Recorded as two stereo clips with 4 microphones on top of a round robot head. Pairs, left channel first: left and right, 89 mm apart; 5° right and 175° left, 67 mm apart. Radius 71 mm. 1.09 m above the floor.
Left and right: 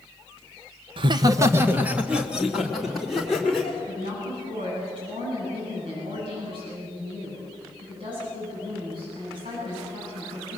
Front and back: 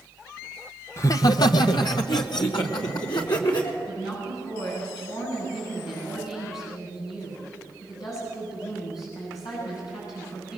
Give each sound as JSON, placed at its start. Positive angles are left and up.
{"t": 1.0, "sound": "laughter", "azimuth_deg": -60, "distance_m": 0.8}
{"t": 3.9, "sound": "a woman speaking", "azimuth_deg": -50, "distance_m": 9.5}